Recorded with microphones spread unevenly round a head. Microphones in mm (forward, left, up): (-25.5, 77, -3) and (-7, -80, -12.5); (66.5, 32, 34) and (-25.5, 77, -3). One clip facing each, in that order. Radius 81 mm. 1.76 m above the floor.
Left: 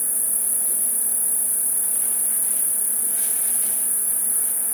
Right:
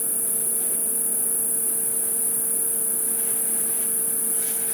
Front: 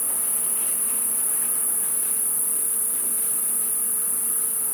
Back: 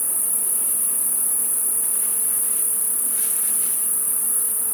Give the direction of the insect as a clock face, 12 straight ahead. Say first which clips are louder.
Right 6 dB, front 1 dB; 8 o'clock.